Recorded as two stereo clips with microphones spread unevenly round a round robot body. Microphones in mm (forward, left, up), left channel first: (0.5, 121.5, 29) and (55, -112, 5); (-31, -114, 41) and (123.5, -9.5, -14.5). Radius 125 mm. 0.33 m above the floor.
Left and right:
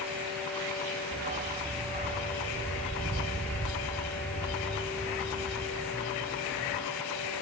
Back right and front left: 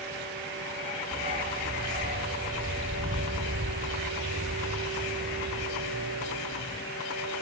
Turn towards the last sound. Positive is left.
turn(degrees=-15)